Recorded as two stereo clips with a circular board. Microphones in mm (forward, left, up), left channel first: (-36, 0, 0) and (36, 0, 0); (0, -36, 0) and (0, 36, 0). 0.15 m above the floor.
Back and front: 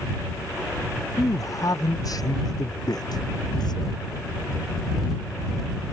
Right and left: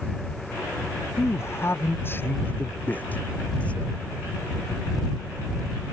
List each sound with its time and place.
1.2 s a man speaking: 140° right; by 4.1 s 165° right